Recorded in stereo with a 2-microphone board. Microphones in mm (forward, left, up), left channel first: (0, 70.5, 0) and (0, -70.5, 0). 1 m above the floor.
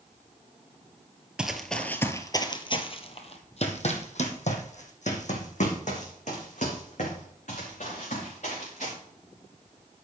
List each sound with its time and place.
1.4 s running footsteps: 5° right (ahead or behind), 1.0 m; by 8.9 s 60° left (ahead or behind), 5.5 m